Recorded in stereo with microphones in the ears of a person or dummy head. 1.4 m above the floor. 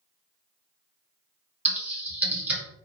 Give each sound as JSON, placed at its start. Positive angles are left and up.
{"t": 1.6, "sound": "typing on a keyboard", "side_deg": -5, "distance_m": 0.7}